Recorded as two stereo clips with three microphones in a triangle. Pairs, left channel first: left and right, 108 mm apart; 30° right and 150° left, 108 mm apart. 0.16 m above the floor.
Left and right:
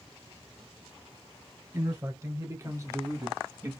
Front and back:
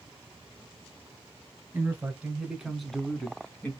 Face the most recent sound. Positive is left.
turn(degrees=-75)